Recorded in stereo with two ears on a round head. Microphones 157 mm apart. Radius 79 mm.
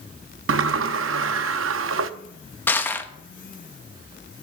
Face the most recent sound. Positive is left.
turn(degrees=10)  # may be behind; listen again after turning